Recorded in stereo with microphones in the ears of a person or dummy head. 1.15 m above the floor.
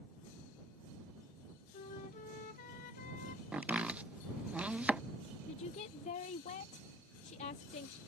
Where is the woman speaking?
40° left (ahead or behind).